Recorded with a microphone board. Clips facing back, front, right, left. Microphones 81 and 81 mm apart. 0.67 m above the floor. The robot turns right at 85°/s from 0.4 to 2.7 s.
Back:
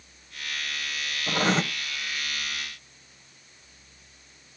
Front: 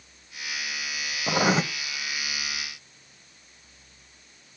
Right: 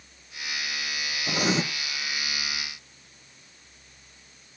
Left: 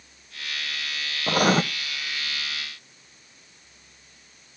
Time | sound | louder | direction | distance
1.3 | writing | front 2 dB, left 6 dB | 55° left | 0.6 m